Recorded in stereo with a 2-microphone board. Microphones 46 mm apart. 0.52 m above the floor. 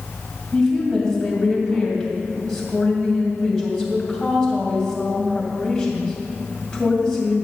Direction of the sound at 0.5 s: 15° left (ahead or behind).